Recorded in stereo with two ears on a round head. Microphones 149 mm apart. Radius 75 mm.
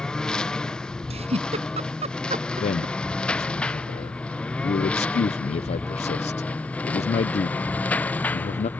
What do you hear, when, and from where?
0.0 s a lawn mower: 5° left (ahead or behind); by 8.8 s 10° left (ahead or behind)
1.1 s a giggle: 40° right (ahead or behind)
2.6 s a man speaking: 40° left (ahead or behind)